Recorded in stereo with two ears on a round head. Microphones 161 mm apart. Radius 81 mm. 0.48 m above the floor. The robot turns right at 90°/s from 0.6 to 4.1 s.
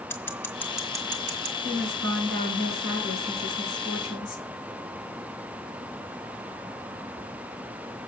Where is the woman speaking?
125° right, 5.5 m; by 4.5 s 95° left, 5.5 m.